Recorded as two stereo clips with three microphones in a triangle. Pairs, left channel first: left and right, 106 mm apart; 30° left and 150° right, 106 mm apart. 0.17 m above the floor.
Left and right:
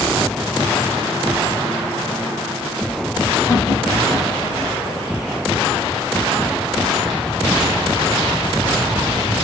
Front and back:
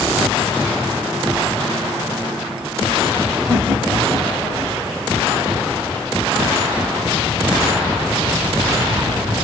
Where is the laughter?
100° left, 2 m; by 4.8 s 85° left, 1.7 m.